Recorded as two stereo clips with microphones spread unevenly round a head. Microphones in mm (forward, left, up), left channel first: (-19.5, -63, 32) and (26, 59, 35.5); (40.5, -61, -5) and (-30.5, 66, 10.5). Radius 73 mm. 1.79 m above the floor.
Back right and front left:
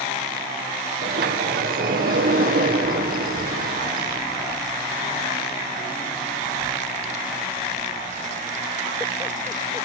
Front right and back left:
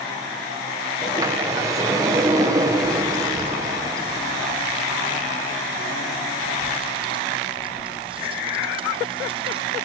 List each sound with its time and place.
1.0 s a sliding door: 50° left, 1.9 m
3.2 s a child speaking: 85° left, 1.1 m